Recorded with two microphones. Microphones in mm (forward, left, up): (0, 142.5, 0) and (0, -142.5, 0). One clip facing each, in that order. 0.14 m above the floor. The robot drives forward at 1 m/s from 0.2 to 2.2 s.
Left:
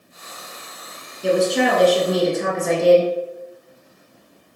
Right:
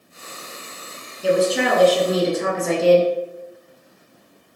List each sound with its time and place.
1.2 s a woman speaking: 5° right (ahead or behind), 1.2 m; by 3.1 s centre (ahead or behind), 1.8 m